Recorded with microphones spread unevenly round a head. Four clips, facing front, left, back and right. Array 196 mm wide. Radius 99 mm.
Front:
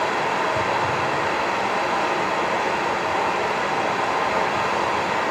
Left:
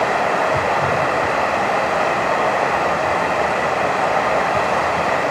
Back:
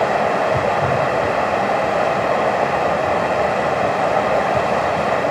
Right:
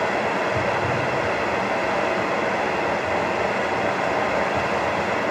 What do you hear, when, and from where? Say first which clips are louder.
0.0 s running water: left 5 dB, back 5 dB; 155° left, 1.6 m